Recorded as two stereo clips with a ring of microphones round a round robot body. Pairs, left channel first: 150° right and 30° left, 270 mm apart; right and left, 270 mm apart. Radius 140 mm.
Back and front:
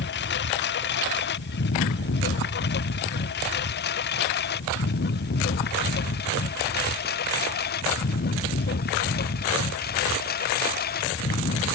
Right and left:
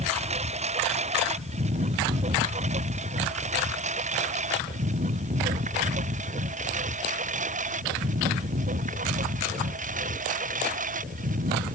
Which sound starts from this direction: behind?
A lawn mower, at 0.0 s.